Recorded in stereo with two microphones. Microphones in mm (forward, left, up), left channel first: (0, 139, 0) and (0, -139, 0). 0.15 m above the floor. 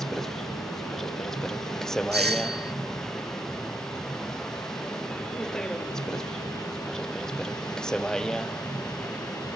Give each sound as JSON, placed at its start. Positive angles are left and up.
{"t": 0.0, "sound": "a vehicle", "side_deg": 0}
{"t": 2.1, "sound": "a doorbell", "side_deg": -35}